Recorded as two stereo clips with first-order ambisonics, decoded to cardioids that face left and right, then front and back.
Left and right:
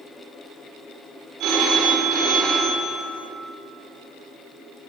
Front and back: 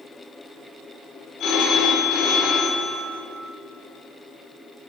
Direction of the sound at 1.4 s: 55° right.